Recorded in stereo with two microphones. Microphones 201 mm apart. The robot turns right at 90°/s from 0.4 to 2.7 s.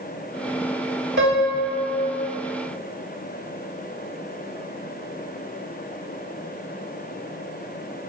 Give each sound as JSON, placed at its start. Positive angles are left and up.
{"t": 1.2, "sound": "a piano", "azimuth_deg": -110, "distance_m": 3.0}